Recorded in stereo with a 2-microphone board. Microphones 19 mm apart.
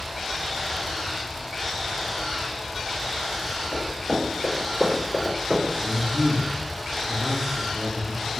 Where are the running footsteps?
20° left (ahead or behind), 1.7 m; by 5.7 s 15° right (ahead or behind), 1.9 m.